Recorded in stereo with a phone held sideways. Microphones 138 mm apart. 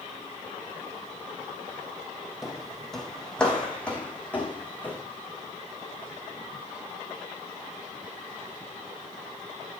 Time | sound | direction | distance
2.4 | footsteps | centre (ahead or behind) | 1.9 m